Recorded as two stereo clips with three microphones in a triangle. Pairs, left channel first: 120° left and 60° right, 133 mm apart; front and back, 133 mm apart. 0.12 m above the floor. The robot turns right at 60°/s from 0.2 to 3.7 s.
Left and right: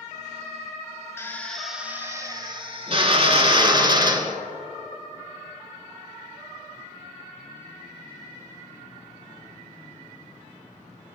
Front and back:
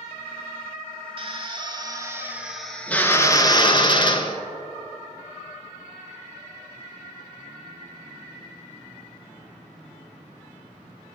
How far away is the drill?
About 0.7 m.